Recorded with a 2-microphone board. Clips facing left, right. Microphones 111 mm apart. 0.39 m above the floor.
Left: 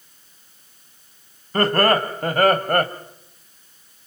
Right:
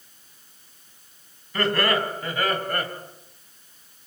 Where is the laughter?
45° left (ahead or behind), 3 m; by 2.9 s 55° left (ahead or behind), 2 m.